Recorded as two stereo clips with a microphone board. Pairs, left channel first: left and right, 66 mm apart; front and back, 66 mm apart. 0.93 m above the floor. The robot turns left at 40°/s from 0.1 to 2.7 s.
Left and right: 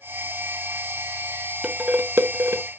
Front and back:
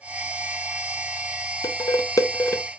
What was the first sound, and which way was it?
Dishes clattering, 15° right.